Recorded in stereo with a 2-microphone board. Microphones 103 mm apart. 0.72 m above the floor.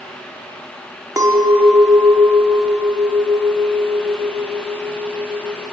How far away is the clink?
About 0.6 m.